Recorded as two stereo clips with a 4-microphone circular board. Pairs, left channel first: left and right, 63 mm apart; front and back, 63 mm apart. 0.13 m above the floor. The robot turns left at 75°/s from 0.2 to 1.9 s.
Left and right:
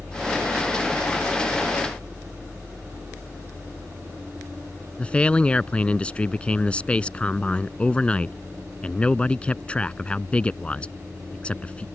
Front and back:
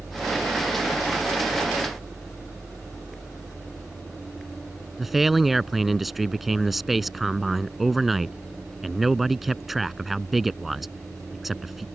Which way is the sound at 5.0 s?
95° left.